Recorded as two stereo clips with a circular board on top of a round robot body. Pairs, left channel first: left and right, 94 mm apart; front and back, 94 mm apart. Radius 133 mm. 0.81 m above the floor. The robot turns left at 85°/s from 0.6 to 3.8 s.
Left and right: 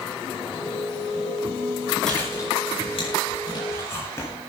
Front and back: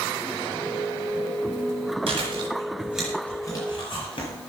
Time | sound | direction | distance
2.1 | chewing | 175° left | 9 m